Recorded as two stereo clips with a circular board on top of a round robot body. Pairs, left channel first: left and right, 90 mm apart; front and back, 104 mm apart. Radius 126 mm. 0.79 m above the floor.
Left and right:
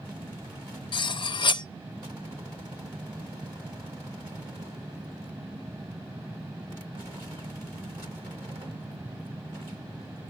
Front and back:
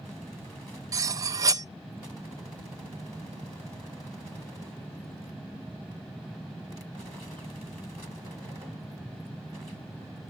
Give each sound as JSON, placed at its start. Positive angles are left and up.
{"t": 0.9, "sound": "cutlery clinking", "azimuth_deg": 120, "distance_m": 0.5}